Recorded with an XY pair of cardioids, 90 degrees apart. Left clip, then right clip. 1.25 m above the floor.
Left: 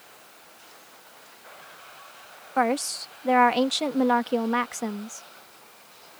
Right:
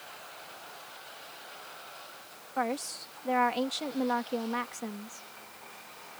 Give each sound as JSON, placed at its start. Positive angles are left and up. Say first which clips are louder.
{"t": 2.6, "sound": "a woman speaking", "louder": "left 8 dB", "azimuth_deg": 65}